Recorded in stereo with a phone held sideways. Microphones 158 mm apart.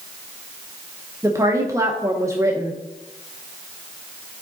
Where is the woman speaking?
20° right (ahead or behind), 0.7 m.